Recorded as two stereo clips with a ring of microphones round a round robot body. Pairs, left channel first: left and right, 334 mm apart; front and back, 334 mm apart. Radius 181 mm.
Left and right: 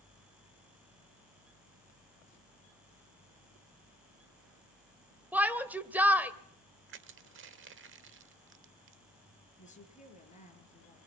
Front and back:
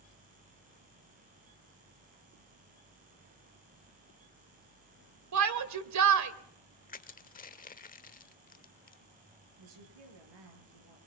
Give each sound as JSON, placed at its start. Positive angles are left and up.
{"t": 5.3, "sound": "a shout", "azimuth_deg": -175, "distance_m": 2.0}
{"t": 6.9, "sound": "crushing", "azimuth_deg": -55, "distance_m": 1.1}
{"t": 9.6, "sound": "a woman speaking", "azimuth_deg": 160, "distance_m": 6.5}